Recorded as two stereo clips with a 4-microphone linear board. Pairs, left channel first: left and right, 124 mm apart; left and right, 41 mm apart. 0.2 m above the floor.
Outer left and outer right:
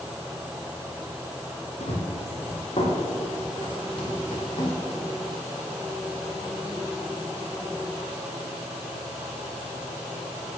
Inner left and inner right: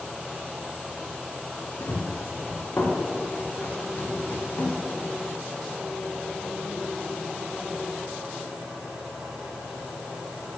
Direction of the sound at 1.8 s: 55° left (ahead or behind).